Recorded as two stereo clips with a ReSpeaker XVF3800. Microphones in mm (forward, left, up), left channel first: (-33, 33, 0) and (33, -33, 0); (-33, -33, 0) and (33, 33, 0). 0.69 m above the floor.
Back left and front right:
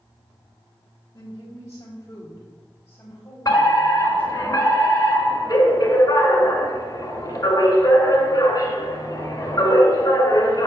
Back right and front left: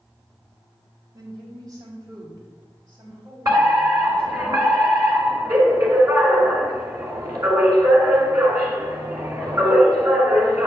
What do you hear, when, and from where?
1.1 s a woman speaking: 85° left, 2.5 m; by 4.5 s 55° left, 4 m
3.5 s a fire alarm: 85° left, 3.5 m